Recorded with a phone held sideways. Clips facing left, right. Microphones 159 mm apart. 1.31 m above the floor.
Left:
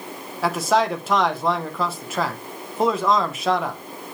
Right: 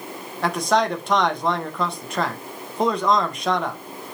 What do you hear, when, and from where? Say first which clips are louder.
0.4 s a man speaking: even; 5° left (ahead or behind), 0.7 m